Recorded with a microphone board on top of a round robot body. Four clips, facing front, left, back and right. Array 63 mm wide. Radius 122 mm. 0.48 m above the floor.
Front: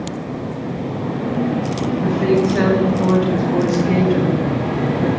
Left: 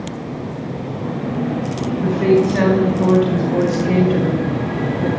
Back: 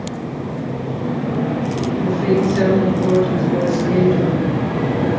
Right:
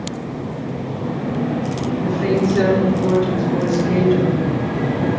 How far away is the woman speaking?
About 5 m.